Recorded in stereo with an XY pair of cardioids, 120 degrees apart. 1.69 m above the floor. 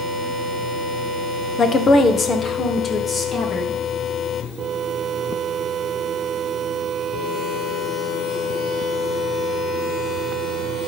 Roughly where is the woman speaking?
Ahead left.